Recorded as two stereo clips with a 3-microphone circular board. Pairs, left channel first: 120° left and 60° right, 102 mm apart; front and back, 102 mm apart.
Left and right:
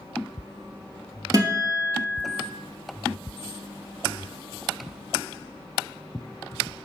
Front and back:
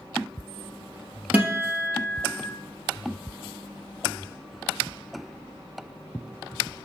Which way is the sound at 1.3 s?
110° right.